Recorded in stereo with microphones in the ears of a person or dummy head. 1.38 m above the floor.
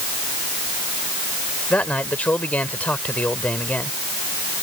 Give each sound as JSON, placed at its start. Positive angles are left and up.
{"t": 1.7, "sound": "a man speaking", "side_deg": 5}